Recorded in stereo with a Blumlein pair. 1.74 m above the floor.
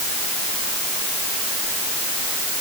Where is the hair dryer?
I don't hear a hair dryer.